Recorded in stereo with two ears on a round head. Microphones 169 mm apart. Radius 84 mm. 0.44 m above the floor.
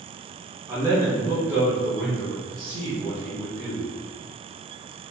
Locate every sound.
0.7 s a man speaking: 15° right (ahead or behind), 1.2 m; by 3.9 s 10° left (ahead or behind), 2.5 m